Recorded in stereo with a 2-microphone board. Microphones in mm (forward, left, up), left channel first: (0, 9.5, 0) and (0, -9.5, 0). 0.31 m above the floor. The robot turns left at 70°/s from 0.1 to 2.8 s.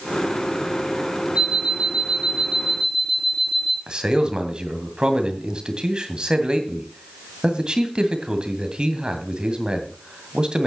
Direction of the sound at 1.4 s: 55° right.